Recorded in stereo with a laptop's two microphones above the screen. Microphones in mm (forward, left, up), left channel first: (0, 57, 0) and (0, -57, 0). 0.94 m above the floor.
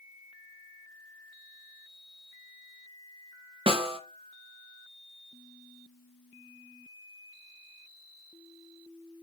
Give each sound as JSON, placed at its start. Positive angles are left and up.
{"t": 3.7, "sound": "a snare drum", "side_deg": -60, "distance_m": 0.5}